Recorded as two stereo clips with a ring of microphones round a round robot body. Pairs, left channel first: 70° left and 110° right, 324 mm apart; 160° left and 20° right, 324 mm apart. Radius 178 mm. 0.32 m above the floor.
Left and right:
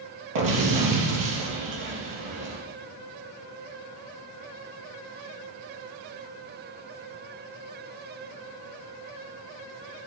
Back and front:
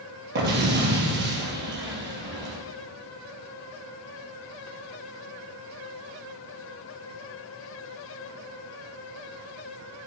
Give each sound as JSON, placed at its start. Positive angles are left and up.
{"t": 0.3, "sound": "an explosion", "azimuth_deg": -80, "distance_m": 3.0}